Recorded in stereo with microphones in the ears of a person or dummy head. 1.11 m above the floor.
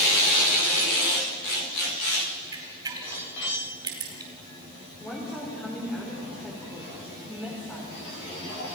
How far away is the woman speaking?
About 4 m.